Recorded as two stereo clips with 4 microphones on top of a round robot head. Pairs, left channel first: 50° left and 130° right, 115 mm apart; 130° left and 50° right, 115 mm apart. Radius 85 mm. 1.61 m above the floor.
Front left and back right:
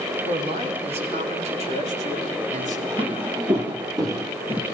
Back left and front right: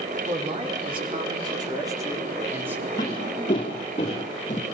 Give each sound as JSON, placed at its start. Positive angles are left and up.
{"t": 0.3, "sound": "a man speaking", "azimuth_deg": -90, "distance_m": 5.0}
{"t": 3.0, "sound": "footsteps", "azimuth_deg": -175, "distance_m": 3.0}